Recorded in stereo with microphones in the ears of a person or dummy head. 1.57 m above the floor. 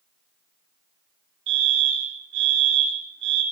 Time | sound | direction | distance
1.5 | a fire alarm | 60° right (ahead or behind) | 8 m